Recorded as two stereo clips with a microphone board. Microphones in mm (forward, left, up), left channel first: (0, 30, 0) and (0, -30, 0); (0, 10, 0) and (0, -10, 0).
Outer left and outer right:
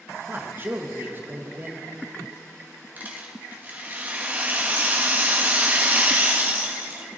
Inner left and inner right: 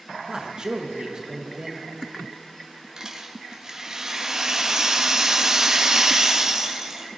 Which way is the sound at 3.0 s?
30° right (ahead or behind).